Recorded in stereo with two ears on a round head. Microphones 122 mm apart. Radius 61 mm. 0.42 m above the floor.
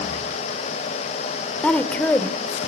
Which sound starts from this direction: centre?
A woman speaking, at 1.6 s.